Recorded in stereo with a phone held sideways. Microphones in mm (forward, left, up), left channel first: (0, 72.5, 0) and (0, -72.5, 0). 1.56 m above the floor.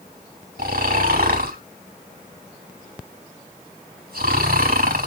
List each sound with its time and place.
0.6 s snoring: 80° right, 3 m